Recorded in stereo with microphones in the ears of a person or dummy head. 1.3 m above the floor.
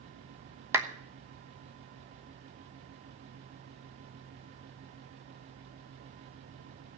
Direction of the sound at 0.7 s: 15° right (ahead or behind).